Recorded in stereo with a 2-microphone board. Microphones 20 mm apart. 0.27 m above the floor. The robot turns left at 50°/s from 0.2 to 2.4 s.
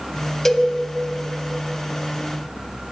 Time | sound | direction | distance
0.5 | a cowbell | 10° left (ahead or behind) | 0.6 m